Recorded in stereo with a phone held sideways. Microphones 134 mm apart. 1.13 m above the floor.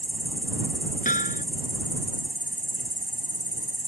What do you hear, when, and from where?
0.0 s an insect: 80° left
1.1 s hammering: 80° left